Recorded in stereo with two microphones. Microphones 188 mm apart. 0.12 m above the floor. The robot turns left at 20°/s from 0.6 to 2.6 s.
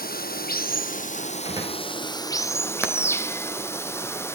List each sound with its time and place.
0.0 s running water: 55° left, 0.9 m; by 4.3 s 15° left, 0.9 m
1.4 s a door slam: 20° right (ahead or behind), 5.5 m; by 1.8 s 25° right (ahead or behind), 5.5 m
2.8 s hammering: 10° right (ahead or behind), 1.7 m